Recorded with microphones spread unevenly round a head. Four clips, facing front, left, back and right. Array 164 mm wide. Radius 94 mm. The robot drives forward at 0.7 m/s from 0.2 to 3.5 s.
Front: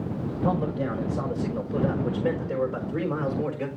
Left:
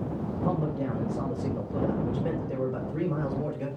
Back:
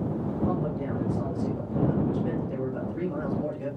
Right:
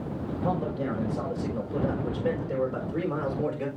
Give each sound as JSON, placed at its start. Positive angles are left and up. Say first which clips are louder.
{"t": 0.4, "sound": "a man speaking", "louder": "right 1 dB, front 4 dB", "azimuth_deg": -15, "distance_m": 6.0}